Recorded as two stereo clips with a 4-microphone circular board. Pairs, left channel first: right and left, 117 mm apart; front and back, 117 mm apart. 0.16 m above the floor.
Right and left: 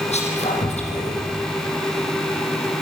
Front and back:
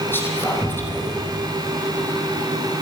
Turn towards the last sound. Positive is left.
turn(degrees=-70)